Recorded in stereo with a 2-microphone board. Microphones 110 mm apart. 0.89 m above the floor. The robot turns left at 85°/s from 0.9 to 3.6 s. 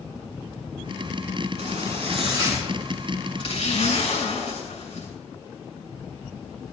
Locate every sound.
1.6 s a zipper: 75° right, 7 m; by 5.1 s 110° left, 7 m